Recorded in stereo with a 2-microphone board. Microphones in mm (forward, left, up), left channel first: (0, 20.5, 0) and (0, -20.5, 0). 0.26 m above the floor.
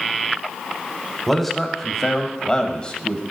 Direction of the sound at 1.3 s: 5° left (ahead or behind).